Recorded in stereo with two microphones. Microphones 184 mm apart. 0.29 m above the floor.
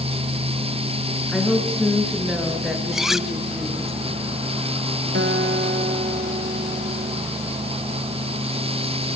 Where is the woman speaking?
Centre (ahead or behind), 5.5 m.